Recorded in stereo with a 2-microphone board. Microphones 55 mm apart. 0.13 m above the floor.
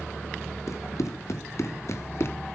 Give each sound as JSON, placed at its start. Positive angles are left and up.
{"t": 0.7, "sound": "running footsteps", "side_deg": 70, "distance_m": 2.5}